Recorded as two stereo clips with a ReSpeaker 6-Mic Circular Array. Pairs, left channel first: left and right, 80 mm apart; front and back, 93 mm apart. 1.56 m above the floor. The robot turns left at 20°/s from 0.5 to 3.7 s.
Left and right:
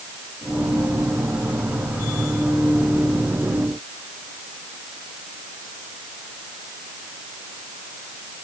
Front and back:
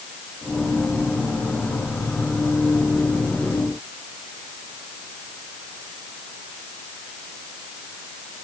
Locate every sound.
Only background noise.